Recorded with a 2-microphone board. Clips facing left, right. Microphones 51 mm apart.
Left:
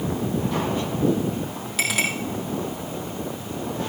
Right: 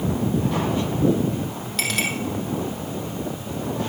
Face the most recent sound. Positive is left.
turn(degrees=5)  # may be behind; listen again after turning